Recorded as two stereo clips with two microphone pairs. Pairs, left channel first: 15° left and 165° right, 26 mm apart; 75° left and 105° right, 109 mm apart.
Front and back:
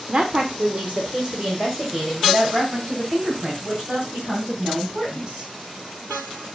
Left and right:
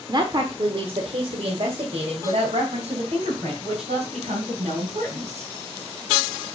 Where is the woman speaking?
130° right, 1.0 m; by 5.5 s 120° right, 4 m.